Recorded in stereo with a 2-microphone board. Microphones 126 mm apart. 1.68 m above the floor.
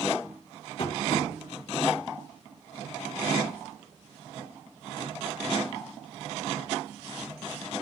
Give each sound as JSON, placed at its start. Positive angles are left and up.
{"t": 0.8, "sound": "tapping", "side_deg": 40, "distance_m": 1.9}